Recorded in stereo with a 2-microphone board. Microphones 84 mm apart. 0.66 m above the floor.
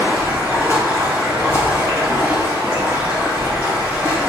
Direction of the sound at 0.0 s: 30° right (ahead or behind).